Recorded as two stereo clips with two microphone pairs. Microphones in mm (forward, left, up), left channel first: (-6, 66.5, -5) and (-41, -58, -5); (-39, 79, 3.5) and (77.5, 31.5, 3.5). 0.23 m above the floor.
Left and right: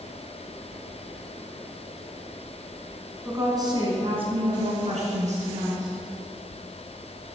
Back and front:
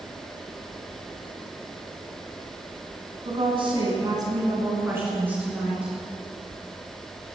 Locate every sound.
3.2 s a woman speaking: 45° right, 2.5 m; by 5.9 s 105° right, 4 m